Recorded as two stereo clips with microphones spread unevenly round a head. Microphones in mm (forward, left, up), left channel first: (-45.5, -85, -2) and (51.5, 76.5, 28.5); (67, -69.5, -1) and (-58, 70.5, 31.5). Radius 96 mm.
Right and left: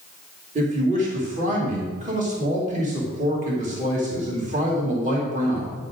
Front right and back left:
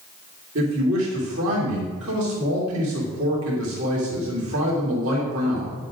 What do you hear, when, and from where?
0.6 s a man speaking: 115° left, 2.5 m